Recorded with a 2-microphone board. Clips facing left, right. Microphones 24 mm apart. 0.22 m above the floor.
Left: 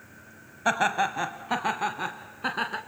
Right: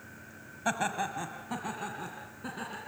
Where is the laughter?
25° left (ahead or behind), 1.0 m; by 2.8 s 60° left (ahead or behind), 2 m.